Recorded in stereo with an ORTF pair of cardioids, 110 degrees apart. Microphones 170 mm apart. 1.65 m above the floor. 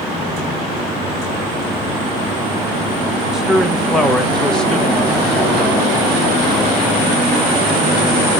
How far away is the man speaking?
About 1.6 m.